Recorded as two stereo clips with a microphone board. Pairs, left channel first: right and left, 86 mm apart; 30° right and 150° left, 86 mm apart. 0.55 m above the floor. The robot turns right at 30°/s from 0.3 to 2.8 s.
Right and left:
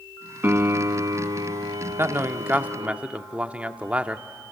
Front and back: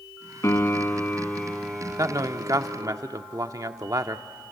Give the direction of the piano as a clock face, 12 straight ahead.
11 o'clock.